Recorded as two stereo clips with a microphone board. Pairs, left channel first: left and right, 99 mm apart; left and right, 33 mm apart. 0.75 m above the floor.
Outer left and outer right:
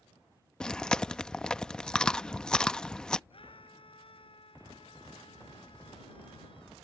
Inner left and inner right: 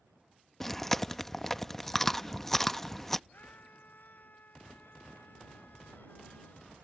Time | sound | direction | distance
0.6 | chewing | 10° left (ahead or behind) | ?
3.3 | a scream | 60° left (ahead or behind) | ?